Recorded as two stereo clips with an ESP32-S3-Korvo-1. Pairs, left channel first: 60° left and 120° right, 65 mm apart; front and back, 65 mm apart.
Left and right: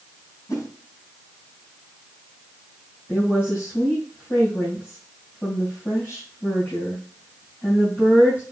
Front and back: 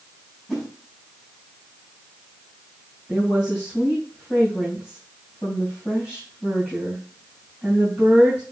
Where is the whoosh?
90° left, 4.5 m.